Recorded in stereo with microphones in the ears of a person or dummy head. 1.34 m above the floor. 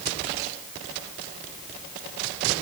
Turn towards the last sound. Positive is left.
No sound to turn to.